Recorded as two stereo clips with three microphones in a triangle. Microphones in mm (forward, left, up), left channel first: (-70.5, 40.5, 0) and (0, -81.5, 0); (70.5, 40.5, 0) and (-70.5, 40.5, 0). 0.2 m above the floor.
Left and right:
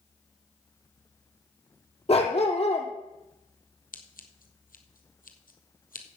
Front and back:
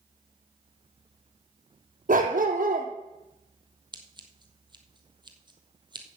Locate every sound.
2.1 s a dog barking: 165° left, 1.9 m
3.9 s scissors: 125° left, 1.4 m